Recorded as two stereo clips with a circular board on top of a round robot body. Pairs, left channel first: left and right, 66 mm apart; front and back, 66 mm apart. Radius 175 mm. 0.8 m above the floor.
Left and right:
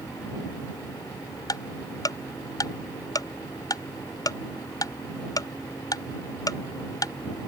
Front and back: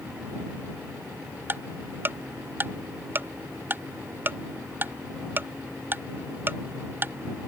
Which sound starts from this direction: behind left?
Ticking, at 1.5 s.